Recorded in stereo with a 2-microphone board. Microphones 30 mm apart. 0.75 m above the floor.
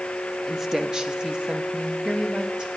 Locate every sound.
0.5 s a woman speaking: 10° right (ahead or behind), 0.6 m; by 2.7 s 30° right (ahead or behind), 1.4 m